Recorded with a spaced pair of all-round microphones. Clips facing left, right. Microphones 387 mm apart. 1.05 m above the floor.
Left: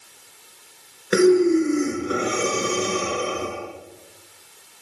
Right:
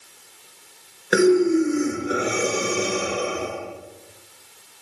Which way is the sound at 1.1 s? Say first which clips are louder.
Left 1 dB; 10° left (ahead or behind).